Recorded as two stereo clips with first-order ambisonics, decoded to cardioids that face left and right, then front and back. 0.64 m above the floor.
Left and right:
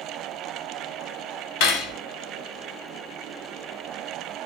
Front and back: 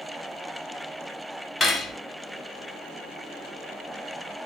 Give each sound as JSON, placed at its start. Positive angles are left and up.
{"t": 1.6, "sound": "cutlery clinking", "azimuth_deg": 70, "distance_m": 0.6}